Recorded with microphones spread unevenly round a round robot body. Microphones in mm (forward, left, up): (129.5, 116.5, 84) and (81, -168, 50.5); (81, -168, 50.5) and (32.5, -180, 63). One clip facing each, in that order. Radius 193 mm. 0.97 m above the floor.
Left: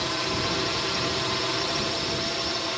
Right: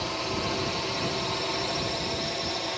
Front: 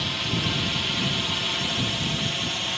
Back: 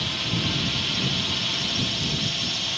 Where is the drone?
55° left; by 2.8 s 20° left.